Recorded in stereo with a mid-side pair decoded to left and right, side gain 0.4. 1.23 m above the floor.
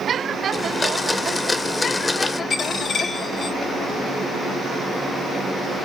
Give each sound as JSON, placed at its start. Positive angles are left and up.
{"t": 0.5, "sound": "a blender", "azimuth_deg": 30, "distance_m": 0.6}
{"t": 2.5, "sound": "a dropped coin", "azimuth_deg": 60, "distance_m": 2.5}